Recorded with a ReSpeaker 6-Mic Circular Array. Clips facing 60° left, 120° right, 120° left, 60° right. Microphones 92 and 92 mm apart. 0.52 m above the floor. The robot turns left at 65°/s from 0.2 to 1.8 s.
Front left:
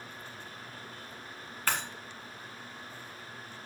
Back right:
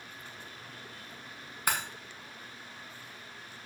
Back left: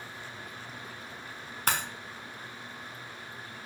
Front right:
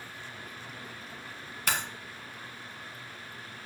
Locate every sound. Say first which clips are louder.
1.7 s breaking glass: back right 1 dB, back left 2 dB; 165° left, 1.4 m; by 1.8 s 155° left, 1.4 m